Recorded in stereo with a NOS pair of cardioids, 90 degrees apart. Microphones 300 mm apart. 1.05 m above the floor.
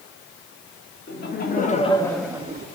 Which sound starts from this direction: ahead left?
Laughter, at 1.1 s.